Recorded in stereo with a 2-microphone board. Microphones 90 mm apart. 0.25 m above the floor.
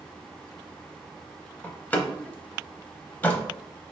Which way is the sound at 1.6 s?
20° left (ahead or behind).